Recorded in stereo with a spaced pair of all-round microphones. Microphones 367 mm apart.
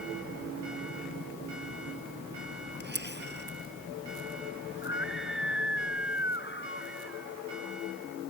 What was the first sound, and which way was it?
A camera shutter, 30° right (ahead or behind).